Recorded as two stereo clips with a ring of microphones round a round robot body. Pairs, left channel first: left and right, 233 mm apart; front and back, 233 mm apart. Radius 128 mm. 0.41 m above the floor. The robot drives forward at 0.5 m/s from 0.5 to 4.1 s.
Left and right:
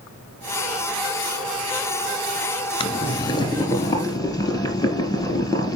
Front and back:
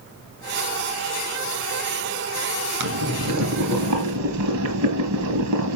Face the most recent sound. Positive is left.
turn(degrees=165)